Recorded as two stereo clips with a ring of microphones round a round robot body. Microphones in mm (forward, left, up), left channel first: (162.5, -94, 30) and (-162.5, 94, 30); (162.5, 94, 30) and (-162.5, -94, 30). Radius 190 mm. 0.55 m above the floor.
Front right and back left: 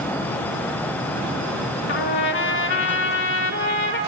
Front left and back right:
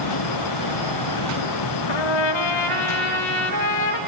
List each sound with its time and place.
1.9 s a trumpet: 30° left, 1.4 m